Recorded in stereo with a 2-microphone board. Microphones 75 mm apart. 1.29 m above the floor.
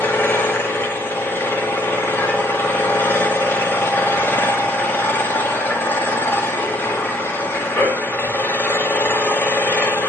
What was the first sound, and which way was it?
An engine running, 25° left (ahead or behind).